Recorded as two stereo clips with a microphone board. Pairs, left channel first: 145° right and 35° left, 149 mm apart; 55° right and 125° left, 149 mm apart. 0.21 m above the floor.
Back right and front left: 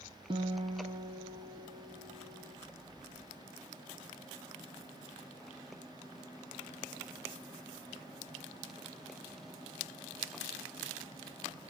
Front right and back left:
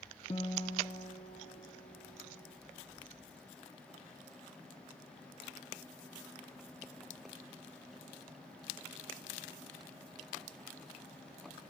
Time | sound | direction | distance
0.3 | a guitar | 20° right | 0.7 m